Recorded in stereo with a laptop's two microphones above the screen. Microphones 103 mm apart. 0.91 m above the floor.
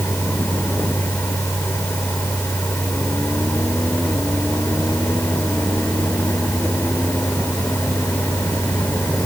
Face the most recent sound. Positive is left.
turn(degrees=20)  # may be behind; listen again after turning